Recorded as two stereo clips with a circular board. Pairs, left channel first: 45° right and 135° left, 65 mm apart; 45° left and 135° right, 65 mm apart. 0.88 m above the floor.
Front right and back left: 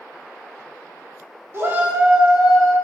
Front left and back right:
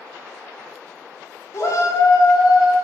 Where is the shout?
85° left, 1.9 m; by 2.7 s 40° left, 2.5 m.